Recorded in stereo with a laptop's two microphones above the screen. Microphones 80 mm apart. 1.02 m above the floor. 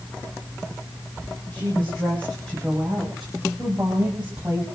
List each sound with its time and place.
1.5 s a woman speaking: 20° left (ahead or behind), 5 m; by 4.7 s 20° right (ahead or behind), 5.5 m